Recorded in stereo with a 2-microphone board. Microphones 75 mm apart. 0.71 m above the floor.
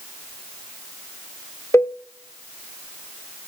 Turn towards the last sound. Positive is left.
turn(degrees=35)  # may be behind; listen again after turning